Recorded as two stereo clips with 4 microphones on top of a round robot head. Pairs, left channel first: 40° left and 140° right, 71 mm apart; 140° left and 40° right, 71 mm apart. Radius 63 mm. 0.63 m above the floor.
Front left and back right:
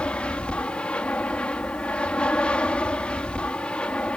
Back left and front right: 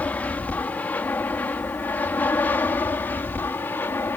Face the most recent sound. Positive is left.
turn(degrees=105)